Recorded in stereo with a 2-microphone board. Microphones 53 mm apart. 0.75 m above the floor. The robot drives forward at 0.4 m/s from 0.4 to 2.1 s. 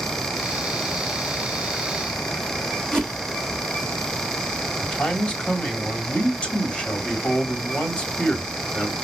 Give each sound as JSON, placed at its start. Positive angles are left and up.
{"t": 2.9, "sound": "a whoosh", "side_deg": 15, "distance_m": 2.5}
{"t": 4.8, "sound": "a man speaking", "side_deg": 20, "distance_m": 2.5}